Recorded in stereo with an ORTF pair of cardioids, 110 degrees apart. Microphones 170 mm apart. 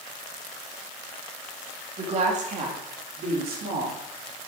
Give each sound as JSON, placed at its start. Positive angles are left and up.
{"t": 2.0, "sound": "a woman speaking", "azimuth_deg": -40, "distance_m": 3.0}